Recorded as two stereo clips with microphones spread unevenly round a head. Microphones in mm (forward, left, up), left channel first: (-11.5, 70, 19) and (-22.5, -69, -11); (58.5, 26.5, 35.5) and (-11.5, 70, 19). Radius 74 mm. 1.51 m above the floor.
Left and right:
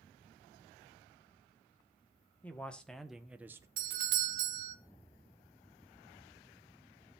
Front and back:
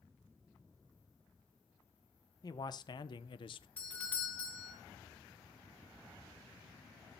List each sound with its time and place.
2.4 s a man speaking: 5° left, 1.2 m; by 3.7 s 20° right, 0.7 m
3.8 s a doorbell: 110° right, 1.2 m